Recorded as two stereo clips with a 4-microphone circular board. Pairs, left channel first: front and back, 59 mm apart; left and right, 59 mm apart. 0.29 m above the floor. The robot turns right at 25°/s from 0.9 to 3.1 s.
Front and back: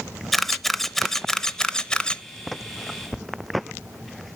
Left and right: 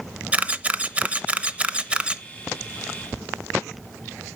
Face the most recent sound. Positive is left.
turn(degrees=-25)